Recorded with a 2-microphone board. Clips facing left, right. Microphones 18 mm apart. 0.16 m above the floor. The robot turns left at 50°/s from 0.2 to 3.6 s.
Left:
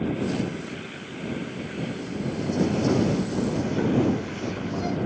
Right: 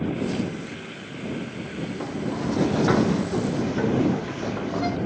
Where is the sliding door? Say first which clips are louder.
Right 4 dB; 70° right; by 5.0 s 150° right.